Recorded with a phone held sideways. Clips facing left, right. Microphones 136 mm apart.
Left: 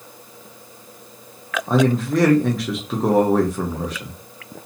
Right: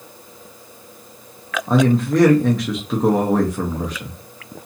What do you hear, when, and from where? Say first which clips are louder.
1.7 s a man speaking: right 2 dB; centre (ahead or behind), 0.6 m